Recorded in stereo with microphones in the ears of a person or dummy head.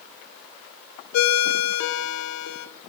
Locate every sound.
1.1 s a ringtone: 80° left, 0.7 m